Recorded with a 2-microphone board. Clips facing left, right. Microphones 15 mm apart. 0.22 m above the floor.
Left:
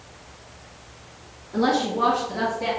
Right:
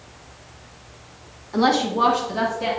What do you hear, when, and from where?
1.5 s a woman speaking: 50° right (ahead or behind), 1.6 m; by 2.7 s 30° right (ahead or behind), 2 m